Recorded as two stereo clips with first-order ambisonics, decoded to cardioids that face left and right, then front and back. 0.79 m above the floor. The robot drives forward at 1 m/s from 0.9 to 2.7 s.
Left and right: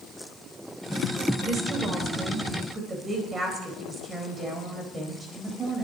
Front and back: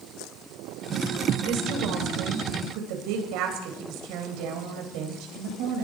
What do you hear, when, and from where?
1.4 s a woman speaking: 160° right, 3 m; by 5.8 s 165° right, 4 m